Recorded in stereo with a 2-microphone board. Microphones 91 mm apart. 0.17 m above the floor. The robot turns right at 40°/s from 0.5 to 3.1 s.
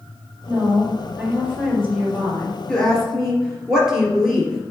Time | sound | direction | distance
0.5 | a woman speaking | 35° right | 3 m
2.7 | a woman speaking | 10° left (ahead or behind) | 2.5 m